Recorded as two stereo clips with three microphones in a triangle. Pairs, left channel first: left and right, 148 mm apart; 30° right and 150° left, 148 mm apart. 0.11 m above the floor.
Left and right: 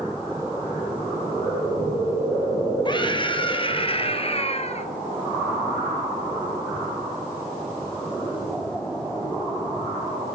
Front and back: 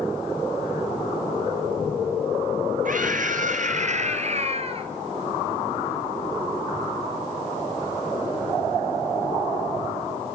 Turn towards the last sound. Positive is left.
turn(degrees=115)